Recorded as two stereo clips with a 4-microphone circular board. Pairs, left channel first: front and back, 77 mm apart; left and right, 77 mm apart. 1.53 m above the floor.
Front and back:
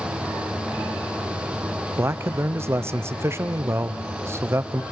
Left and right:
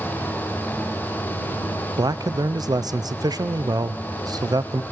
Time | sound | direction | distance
2.0 | a man speaking | 125° right | 0.5 m